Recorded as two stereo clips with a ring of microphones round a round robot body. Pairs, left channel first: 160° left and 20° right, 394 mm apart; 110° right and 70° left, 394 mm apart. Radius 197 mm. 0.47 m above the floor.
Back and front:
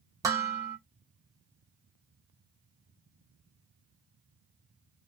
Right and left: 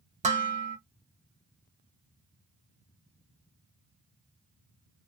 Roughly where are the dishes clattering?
Ahead left.